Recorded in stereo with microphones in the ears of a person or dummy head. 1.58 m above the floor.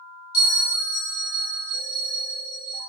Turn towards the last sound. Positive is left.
turn(degrees=75)  # may be behind; listen again after turning